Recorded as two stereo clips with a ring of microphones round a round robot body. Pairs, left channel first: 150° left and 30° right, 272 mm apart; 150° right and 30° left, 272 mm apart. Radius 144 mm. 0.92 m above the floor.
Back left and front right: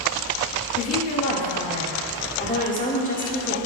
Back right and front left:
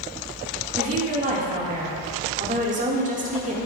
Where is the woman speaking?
90° left, 1.7 m.